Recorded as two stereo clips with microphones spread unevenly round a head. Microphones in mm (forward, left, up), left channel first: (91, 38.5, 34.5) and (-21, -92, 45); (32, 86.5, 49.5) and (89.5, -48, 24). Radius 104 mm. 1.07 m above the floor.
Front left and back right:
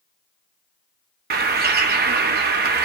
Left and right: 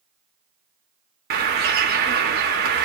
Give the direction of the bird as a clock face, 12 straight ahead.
3 o'clock.